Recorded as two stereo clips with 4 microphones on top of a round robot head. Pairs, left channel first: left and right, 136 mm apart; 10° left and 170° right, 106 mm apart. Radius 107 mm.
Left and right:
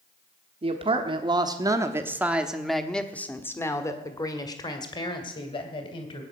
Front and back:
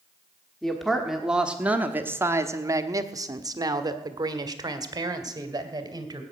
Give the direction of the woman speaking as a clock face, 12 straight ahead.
2 o'clock.